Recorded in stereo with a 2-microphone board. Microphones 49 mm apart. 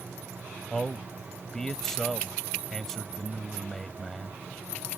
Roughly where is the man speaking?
Centre.